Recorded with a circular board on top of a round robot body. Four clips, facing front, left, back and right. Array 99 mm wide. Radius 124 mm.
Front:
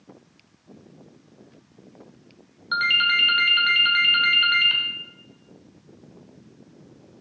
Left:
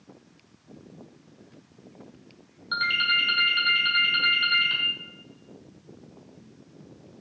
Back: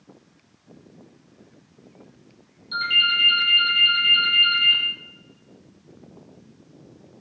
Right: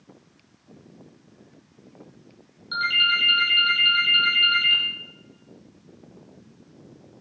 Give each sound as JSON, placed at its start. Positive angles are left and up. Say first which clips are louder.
{"t": 2.7, "sound": "a ringtone", "louder": "right 2 dB, front 2 dB", "azimuth_deg": 15, "distance_m": 1.3}